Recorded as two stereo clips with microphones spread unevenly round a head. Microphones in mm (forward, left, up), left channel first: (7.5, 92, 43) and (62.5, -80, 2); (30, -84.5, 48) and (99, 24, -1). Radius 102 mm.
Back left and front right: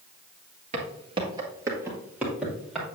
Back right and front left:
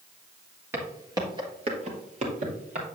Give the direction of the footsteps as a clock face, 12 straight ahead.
1 o'clock.